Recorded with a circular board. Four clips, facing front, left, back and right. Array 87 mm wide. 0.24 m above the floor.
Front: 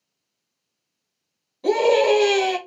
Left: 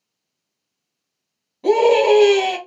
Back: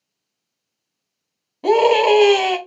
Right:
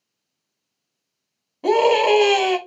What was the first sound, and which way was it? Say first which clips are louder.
A scream: left 2 dB, back 3 dB; 155° right.